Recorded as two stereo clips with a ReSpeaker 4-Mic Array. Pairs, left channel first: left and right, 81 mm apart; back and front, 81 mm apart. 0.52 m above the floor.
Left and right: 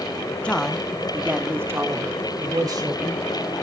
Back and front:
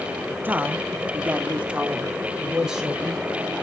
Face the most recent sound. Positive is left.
turn(degrees=-85)